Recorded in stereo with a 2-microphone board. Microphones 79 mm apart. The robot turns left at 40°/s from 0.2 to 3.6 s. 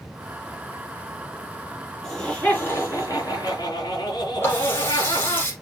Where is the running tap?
30° left (ahead or behind), 5 m.